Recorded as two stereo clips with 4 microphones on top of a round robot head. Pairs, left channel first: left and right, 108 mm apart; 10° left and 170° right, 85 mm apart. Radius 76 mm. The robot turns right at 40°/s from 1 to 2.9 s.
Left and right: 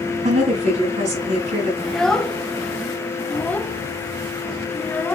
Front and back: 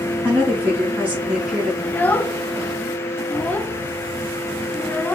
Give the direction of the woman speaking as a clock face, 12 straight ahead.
3 o'clock.